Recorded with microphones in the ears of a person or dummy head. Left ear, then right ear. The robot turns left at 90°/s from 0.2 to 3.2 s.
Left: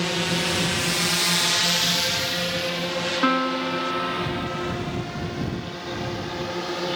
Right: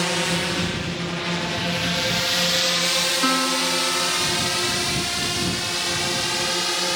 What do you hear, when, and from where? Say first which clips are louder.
0.0 s a drone: right 2 dB; 25° right (ahead or behind); by 7.0 s 65° right (ahead or behind)
3.2 s a piano: right 2 dB; 10° right (ahead or behind)